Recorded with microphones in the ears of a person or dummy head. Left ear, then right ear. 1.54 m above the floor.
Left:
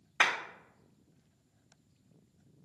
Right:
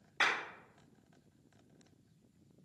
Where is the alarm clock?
I don't hear an alarm clock.